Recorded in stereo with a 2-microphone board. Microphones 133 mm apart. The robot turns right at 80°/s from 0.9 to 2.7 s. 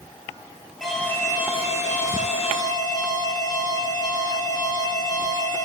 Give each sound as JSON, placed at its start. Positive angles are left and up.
{"t": 0.8, "sound": "an alarm", "azimuth_deg": 0, "distance_m": 4.0}